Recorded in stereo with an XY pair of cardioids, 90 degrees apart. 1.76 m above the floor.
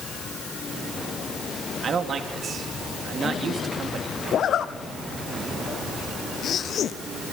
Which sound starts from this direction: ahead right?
A man speaking, at 1.8 s.